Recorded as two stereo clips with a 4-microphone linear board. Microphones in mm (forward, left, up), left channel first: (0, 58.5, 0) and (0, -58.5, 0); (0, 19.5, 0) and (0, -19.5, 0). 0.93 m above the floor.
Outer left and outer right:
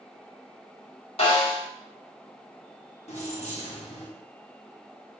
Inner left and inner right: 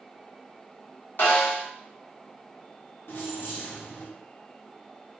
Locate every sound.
1.2 s a snare drum: 55° left (ahead or behind), 1.4 m
3.1 s keys jangling: 70° left (ahead or behind), 0.9 m